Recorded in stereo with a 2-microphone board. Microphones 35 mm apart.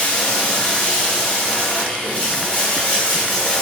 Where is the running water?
40° left (ahead or behind), 1.7 m.